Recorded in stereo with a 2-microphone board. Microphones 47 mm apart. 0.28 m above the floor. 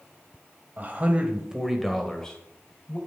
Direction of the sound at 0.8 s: 35° right (ahead or behind).